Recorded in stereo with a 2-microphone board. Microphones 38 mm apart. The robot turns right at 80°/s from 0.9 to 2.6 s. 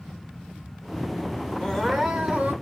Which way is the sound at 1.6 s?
155° left.